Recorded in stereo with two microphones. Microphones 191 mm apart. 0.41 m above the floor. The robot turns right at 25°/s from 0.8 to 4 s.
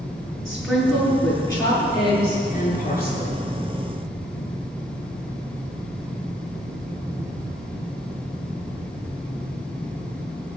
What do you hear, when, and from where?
0.5 s a woman speaking: 5° left, 7 m; by 3.4 s 70° left, 7 m